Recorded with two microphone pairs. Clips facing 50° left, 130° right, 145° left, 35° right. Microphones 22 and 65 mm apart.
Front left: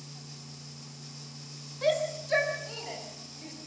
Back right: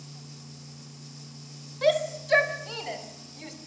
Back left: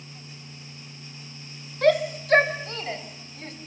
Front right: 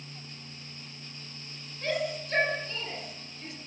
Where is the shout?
165° left, 2.5 m; by 3.5 s 175° right, 3.5 m.